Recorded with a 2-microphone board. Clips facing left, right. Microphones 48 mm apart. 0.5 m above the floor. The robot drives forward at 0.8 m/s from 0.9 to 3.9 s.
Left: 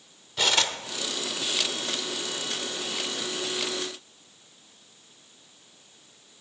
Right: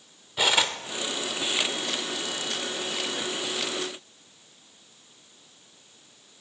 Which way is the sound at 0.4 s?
10° right (ahead or behind).